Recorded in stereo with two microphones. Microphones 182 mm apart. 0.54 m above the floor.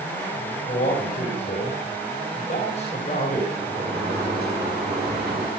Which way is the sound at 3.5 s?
60° right (ahead or behind).